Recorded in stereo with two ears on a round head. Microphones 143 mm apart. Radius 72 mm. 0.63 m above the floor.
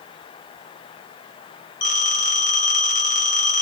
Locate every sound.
1.8 s a phone ringing: 55° left (ahead or behind), 2 m